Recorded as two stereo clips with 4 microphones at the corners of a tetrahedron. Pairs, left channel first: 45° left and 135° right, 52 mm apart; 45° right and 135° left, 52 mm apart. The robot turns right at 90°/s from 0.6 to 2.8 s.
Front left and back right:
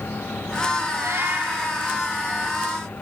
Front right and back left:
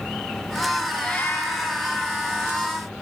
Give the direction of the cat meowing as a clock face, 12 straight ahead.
4 o'clock.